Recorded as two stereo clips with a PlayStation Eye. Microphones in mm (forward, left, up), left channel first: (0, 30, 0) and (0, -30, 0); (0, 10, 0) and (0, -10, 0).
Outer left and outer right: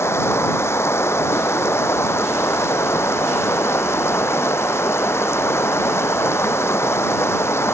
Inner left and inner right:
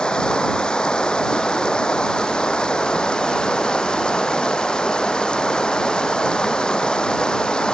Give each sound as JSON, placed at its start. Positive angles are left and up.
{"t": 0.0, "sound": "running water", "side_deg": 50}